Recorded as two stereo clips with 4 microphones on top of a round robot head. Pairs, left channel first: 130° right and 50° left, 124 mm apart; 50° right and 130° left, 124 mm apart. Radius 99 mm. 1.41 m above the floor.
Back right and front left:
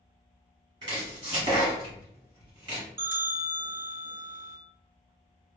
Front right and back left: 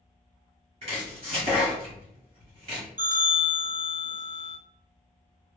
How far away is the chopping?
About 1.3 m.